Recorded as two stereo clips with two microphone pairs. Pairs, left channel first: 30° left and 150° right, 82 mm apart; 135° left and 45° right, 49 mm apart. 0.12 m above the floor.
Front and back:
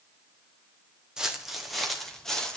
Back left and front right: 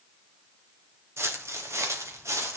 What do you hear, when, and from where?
1.2 s footsteps: 70° right, 2.5 m; by 2.6 s 55° right, 3.5 m